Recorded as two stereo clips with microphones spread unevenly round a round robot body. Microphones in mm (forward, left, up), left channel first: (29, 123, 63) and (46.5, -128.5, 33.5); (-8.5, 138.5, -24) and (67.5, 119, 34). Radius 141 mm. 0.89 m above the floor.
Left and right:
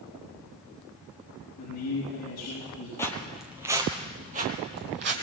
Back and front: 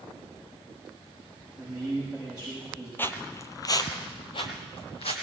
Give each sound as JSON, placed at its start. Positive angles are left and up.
{"t": 1.6, "sound": "a man speaking", "azimuth_deg": 85, "distance_m": 6.5}
{"t": 3.0, "sound": "footsteps", "azimuth_deg": 40, "distance_m": 0.9}